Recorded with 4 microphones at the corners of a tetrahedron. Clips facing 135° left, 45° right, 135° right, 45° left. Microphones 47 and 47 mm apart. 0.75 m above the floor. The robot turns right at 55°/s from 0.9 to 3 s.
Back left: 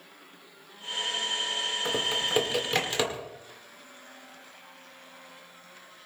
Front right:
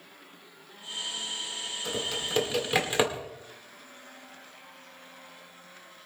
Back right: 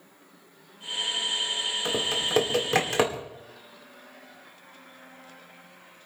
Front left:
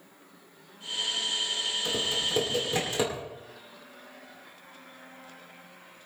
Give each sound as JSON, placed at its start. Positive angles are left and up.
{"t": 1.9, "sound": "typing on a keyboard", "azimuth_deg": -175, "distance_m": 2.0}